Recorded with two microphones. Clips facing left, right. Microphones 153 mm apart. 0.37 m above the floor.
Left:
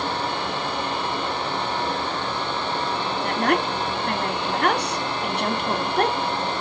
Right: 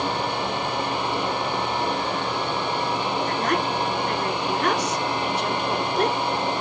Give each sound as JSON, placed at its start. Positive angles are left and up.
{"t": 3.2, "sound": "a woman speaking", "side_deg": 70, "distance_m": 3.0}